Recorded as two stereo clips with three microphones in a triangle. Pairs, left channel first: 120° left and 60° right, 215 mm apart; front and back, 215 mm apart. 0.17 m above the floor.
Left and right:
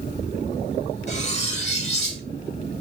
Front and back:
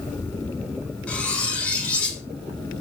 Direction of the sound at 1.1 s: 80° left.